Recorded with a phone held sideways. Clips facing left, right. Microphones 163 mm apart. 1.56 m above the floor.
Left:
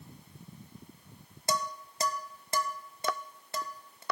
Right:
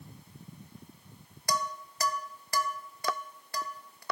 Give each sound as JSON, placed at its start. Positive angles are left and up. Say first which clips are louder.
{"t": 1.5, "sound": "dishes clattering", "louder": "even", "side_deg": 25, "distance_m": 0.6}